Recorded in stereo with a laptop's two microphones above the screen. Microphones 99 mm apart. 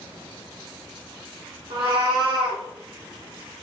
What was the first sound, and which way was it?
A cat meowing, 60° right (ahead or behind).